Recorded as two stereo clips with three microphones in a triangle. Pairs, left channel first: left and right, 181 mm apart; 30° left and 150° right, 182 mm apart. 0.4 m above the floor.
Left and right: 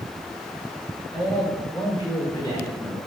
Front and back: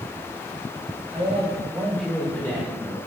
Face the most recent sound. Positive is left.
turn(degrees=65)